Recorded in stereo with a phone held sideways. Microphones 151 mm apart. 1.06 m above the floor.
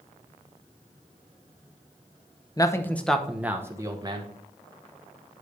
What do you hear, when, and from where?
2.6 s a man speaking: 25° left (ahead or behind), 0.7 m; by 4.3 s 30° right (ahead or behind), 1.1 m